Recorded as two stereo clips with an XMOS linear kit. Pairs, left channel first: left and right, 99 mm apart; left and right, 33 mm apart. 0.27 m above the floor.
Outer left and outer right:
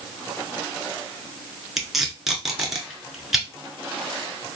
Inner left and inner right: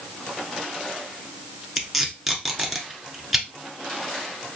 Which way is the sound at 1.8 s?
Centre (ahead or behind).